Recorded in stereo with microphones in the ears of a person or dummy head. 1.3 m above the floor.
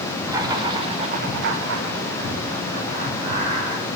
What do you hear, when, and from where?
0.3 s laughter: 15° right (ahead or behind), 1.8 m; by 3.9 s 20° right (ahead or behind), 3.5 m